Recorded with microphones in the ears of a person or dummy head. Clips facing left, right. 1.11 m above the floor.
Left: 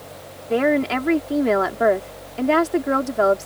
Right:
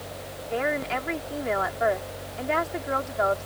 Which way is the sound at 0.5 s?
60° left (ahead or behind).